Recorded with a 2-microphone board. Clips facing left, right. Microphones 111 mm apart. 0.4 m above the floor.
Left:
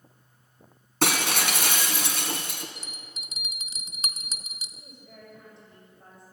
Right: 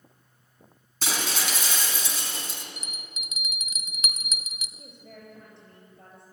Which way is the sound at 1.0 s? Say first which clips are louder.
Left 5 dB; 70° left (ahead or behind).